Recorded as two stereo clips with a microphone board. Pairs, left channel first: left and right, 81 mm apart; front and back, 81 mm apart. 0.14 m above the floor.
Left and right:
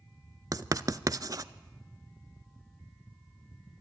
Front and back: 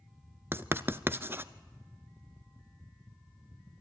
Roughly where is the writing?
Behind right.